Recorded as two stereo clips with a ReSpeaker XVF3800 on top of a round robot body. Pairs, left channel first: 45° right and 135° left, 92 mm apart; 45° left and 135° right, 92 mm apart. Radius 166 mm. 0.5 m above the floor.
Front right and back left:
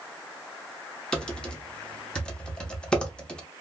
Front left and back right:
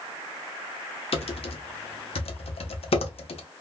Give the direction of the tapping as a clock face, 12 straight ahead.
No tapping in this recording.